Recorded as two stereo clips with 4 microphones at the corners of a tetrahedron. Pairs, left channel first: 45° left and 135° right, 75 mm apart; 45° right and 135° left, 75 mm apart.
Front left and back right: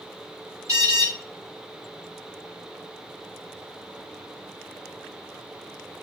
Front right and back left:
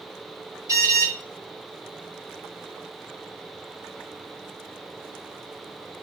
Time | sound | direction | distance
0.7 | an alarm | straight behind | 5.5 m